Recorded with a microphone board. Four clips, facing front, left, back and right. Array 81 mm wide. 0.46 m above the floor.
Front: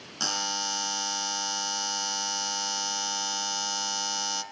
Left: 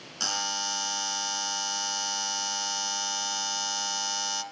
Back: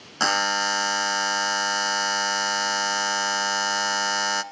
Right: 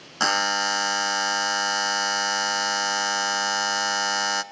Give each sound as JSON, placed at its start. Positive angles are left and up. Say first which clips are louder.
{"t": 0.2, "sound": "a buzzer", "louder": "right 11 dB, back 10 dB", "azimuth_deg": -135, "distance_m": 1.1}